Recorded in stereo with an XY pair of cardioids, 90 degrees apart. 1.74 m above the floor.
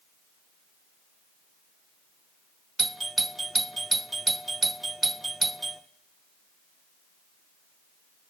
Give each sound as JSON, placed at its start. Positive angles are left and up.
{"t": 2.8, "sound": "a doorbell", "azimuth_deg": -25, "distance_m": 0.7}